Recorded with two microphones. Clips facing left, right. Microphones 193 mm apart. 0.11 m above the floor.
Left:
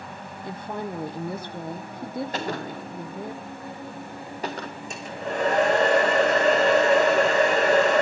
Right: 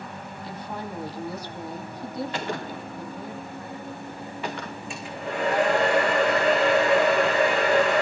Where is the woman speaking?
50° left (ahead or behind), 3.5 m.